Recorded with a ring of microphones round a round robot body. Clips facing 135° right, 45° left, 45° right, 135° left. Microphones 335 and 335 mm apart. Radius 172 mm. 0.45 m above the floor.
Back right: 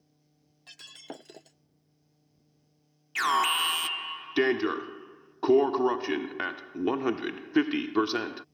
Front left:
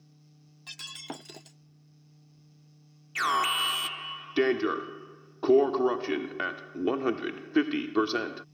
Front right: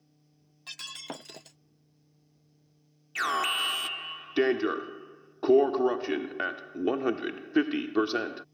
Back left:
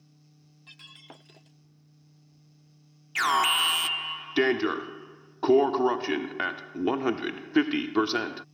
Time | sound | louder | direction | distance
0.7 | breaking glass | front left 2 dB, front right 10 dB | 20° right | ?
3.1 | an alarm | back right 1 dB, back left 3 dB | 165° left | ?